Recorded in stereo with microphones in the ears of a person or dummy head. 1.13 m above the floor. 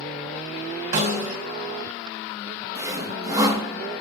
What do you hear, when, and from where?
0.9 s a snare drum: 45° right (ahead or behind), 5.5 m
2.8 s sawing: 20° right (ahead or behind), 1.1 m